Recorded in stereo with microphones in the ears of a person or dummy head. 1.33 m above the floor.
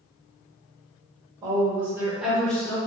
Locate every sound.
1.4 s a woman speaking: 25° right (ahead or behind), 1.2 m; by 2.8 s 15° left (ahead or behind), 0.8 m